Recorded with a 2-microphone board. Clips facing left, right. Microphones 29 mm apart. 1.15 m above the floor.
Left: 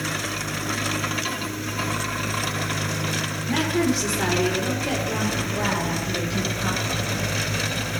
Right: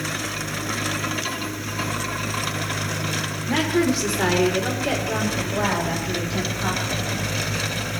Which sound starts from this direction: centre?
A woman speaking, at 3.5 s.